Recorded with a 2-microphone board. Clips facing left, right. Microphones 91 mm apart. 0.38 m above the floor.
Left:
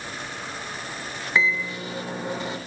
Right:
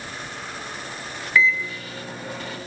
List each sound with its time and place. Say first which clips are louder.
1.4 s a microwave: right 3 dB; 20° left (ahead or behind), 0.6 m